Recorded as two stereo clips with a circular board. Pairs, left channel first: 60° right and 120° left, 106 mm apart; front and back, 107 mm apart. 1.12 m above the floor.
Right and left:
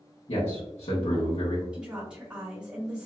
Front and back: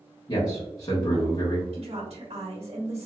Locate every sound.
0.3 s a man speaking: 50° right, 1.1 m
1.7 s a woman speaking: 160° right, 1.6 m